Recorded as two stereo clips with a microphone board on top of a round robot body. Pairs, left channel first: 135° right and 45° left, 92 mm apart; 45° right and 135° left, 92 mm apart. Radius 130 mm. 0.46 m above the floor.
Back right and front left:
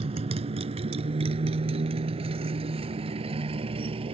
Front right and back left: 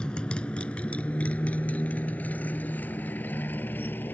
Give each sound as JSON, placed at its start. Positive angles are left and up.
{"t": 0.0, "sound": "a motorcycle", "azimuth_deg": 35}